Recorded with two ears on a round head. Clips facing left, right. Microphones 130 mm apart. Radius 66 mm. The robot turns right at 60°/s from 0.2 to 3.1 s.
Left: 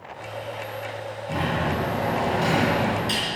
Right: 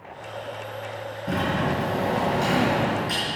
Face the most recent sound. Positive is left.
turn(degrees=30)